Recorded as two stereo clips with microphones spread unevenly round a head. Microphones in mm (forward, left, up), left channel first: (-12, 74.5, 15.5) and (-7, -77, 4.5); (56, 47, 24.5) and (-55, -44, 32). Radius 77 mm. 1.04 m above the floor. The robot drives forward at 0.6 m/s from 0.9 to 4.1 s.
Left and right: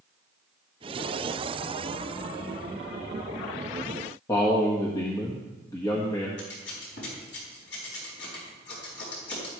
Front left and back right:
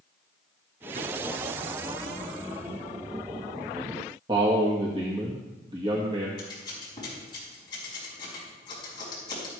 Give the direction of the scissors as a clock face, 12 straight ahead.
9 o'clock.